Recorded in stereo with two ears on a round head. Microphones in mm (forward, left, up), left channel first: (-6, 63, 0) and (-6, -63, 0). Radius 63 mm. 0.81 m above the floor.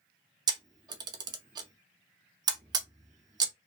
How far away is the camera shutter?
About 0.5 m.